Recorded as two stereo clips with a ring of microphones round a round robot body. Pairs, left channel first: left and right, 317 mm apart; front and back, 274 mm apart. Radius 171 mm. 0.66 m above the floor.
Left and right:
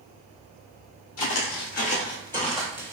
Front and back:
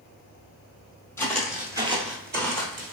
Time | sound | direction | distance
1.2 | footsteps | 75° left | 0.8 m